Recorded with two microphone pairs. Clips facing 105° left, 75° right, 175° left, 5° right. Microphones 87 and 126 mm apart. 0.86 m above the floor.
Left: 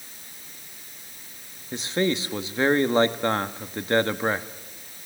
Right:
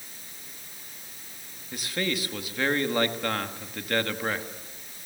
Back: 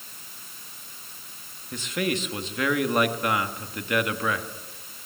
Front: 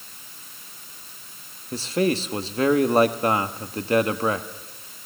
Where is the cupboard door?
I don't hear a cupboard door.